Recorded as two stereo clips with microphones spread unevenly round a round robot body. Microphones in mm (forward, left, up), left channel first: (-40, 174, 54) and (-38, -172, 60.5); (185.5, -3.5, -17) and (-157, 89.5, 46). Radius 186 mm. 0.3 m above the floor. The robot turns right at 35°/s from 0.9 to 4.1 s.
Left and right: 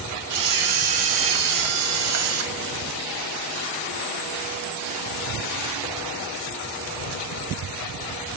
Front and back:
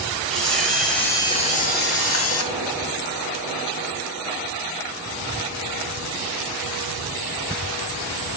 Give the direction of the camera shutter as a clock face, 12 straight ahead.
3 o'clock.